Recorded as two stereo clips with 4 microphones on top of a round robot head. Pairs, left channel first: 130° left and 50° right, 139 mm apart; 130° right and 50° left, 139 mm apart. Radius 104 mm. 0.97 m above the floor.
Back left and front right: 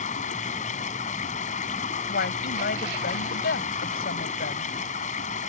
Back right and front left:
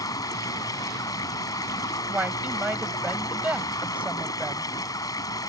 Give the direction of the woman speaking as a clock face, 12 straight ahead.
8 o'clock.